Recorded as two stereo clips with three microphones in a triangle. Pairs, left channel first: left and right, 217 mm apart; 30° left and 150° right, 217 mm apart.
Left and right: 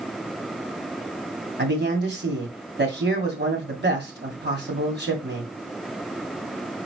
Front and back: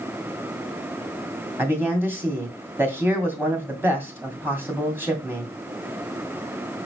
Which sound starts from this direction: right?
A man speaking, at 1.6 s.